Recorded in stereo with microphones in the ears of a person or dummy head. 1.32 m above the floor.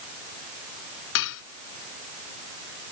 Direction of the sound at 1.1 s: 75° left (ahead or behind).